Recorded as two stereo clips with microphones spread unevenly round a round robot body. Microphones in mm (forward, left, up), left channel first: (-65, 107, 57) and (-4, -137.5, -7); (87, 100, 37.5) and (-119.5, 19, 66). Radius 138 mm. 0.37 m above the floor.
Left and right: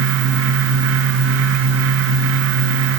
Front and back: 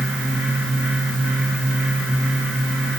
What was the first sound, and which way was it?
Only background noise.